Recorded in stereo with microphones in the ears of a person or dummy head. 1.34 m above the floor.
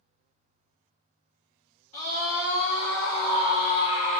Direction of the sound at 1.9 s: 35° left (ahead or behind).